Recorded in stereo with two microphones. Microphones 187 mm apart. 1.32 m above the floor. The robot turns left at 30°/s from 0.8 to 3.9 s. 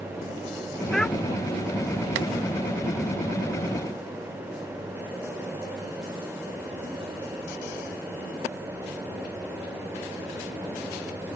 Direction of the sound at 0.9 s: Centre (ahead or behind).